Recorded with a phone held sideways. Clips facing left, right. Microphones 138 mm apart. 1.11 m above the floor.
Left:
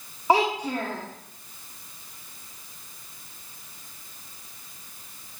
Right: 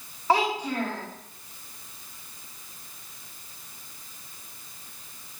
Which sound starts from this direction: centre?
A child speaking, at 0.3 s.